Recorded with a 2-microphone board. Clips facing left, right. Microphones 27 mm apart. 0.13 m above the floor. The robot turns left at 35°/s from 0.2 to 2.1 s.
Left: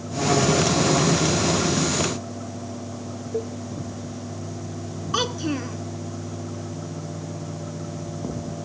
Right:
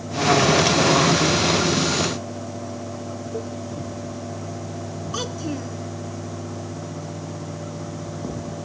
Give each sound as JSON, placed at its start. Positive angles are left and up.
{"t": 3.3, "sound": "a cowbell", "side_deg": 30}
{"t": 5.1, "sound": "a child speaking", "side_deg": 30}